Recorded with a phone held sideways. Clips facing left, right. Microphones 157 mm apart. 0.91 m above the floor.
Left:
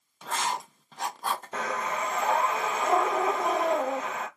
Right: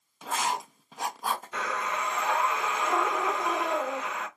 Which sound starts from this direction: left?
Breathing, at 1.5 s.